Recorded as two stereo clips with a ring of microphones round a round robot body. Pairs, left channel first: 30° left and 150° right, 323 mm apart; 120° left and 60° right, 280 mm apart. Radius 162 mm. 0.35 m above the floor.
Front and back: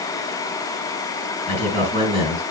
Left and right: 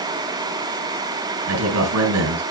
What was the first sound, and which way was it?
A man speaking, 40° right.